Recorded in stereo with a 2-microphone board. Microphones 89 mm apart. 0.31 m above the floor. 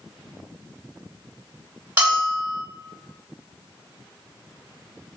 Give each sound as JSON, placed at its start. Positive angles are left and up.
{"t": 2.0, "sound": "a bell", "side_deg": -25, "distance_m": 1.6}